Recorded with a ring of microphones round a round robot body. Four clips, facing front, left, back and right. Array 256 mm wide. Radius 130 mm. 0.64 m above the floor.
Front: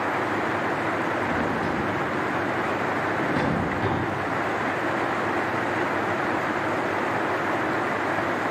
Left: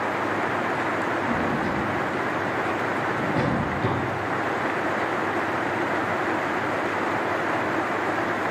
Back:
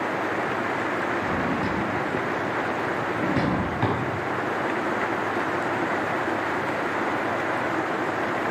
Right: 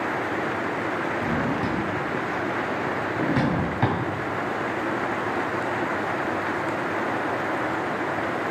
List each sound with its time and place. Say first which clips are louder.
1.2 s a drawer: left 1 dB, even; 95° right, 1.9 m